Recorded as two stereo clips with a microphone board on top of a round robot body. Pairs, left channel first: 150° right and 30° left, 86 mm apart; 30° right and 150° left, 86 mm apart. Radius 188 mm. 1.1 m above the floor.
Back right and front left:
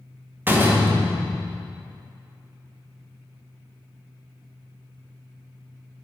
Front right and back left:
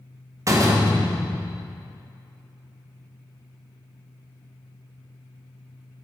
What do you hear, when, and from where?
0.5 s a door slam: 100° left, 1.1 m